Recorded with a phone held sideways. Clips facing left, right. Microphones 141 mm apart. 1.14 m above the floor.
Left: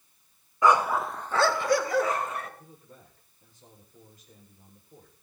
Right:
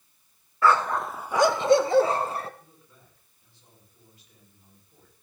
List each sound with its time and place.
0.6 s a dog barking: 15° left (ahead or behind), 0.9 m; by 2.5 s 35° right (ahead or behind), 1.6 m
2.6 s a man speaking: 45° left (ahead or behind), 5 m